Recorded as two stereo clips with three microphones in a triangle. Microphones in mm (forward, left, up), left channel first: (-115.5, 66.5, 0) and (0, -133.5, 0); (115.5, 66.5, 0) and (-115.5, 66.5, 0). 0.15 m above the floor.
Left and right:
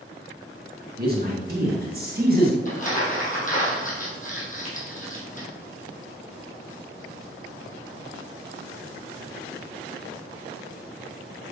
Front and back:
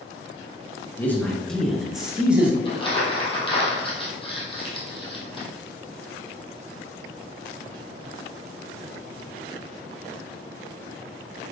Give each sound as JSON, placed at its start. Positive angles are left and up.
{"t": 1.0, "sound": "a man speaking", "azimuth_deg": -80, "distance_m": 1.8}
{"t": 2.6, "sound": "crumpling", "azimuth_deg": 70, "distance_m": 2.0}